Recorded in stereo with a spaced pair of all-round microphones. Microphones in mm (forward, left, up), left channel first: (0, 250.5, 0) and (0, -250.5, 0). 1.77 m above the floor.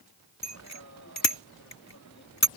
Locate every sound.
0.4 s a bicycle bell: 30° left (ahead or behind)